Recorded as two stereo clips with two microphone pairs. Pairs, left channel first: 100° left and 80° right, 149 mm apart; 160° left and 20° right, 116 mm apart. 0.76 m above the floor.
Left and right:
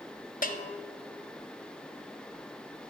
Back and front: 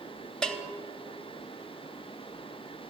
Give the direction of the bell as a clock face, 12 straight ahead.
9 o'clock.